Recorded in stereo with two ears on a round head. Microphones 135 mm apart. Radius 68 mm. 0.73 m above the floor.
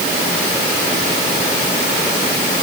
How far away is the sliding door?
No sliding door in this recording.